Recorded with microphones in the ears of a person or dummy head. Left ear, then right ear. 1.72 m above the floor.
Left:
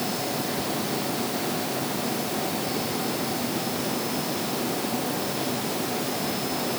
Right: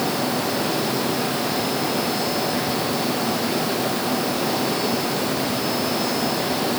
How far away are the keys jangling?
No keys jangling in this recording.